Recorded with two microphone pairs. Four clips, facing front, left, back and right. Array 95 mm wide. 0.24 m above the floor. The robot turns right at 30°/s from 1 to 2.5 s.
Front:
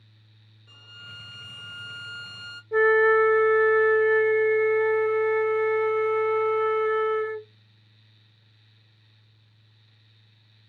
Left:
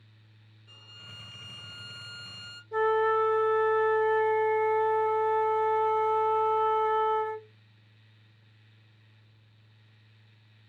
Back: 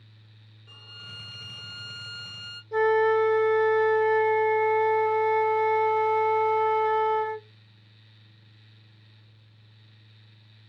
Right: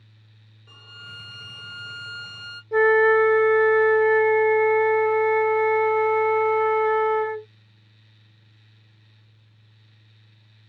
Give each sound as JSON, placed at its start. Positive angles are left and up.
{"t": 0.7, "sound": "a violin", "azimuth_deg": -100, "distance_m": 1.3}
{"t": 2.7, "sound": "a flute", "azimuth_deg": -70, "distance_m": 0.5}